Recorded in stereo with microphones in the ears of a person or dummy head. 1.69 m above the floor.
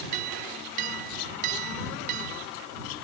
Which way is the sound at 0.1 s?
50° right (ahead or behind).